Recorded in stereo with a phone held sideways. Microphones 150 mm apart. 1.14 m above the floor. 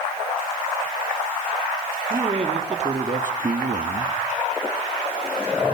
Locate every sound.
2.1 s a man speaking: 40° right (ahead or behind), 3 m; by 4.2 s 80° right, 1.6 m